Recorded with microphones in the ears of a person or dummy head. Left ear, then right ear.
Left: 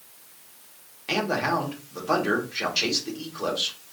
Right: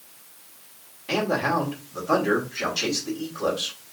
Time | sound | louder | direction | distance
1.1 | a man speaking | right 1 dB | 50° left (ahead or behind) | 2 m